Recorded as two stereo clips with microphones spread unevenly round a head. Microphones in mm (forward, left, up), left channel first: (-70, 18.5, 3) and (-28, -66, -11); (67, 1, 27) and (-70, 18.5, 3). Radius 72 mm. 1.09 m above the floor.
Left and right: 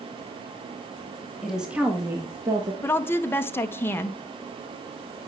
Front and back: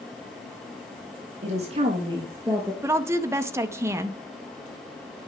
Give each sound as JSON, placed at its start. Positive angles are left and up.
{"t": 1.4, "sound": "a woman speaking", "azimuth_deg": -150, "distance_m": 1.8}
{"t": 2.8, "sound": "a woman speaking", "azimuth_deg": 175, "distance_m": 0.6}